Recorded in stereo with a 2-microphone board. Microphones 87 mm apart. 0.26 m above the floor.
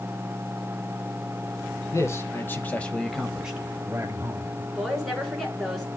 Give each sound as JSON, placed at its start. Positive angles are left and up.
{"t": 1.9, "sound": "a man speaking", "side_deg": 35, "distance_m": 1.3}
{"t": 4.8, "sound": "a woman speaking", "side_deg": 5, "distance_m": 3.0}